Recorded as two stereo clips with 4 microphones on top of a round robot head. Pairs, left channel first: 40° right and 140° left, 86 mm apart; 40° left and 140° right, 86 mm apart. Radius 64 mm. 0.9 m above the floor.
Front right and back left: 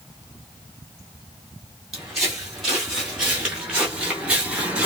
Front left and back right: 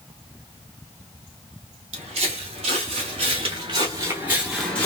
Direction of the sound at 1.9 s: 135° right.